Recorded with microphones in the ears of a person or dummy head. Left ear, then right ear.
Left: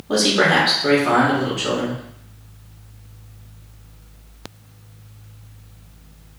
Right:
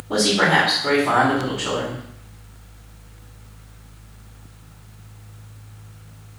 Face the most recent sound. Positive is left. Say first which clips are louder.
# left 1 dB
turn(degrees=60)  # may be behind; listen again after turning